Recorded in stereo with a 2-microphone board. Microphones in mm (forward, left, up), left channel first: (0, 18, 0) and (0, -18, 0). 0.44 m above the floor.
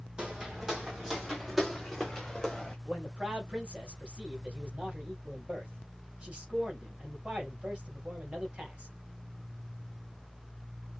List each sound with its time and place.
0.2 s footsteps: 25° right (ahead or behind), 2 m; by 2.8 s 10° left (ahead or behind), 2.5 m
2.9 s a man speaking: 35° right (ahead or behind), 3 m